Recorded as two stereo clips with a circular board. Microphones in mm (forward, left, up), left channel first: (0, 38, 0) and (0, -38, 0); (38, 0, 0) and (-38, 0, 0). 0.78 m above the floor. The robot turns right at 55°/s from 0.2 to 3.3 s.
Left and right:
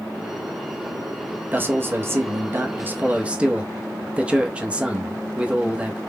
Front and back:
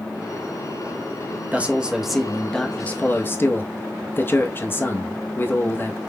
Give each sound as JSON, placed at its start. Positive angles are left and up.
{"t": 1.5, "sound": "a man speaking", "azimuth_deg": -130, "distance_m": 0.6}